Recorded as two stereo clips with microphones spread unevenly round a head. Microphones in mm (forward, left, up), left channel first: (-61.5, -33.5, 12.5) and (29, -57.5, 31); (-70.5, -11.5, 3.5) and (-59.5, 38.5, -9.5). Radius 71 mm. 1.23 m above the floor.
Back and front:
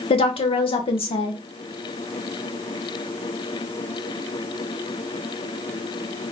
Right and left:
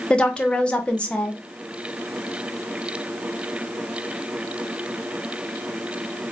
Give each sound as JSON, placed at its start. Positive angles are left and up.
{"t": 0.1, "sound": "a woman speaking", "azimuth_deg": -175, "distance_m": 0.9}